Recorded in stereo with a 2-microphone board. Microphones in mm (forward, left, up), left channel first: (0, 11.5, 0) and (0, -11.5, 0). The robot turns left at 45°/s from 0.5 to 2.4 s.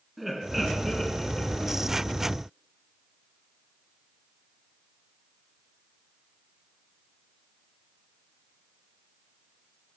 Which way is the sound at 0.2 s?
5° right (ahead or behind).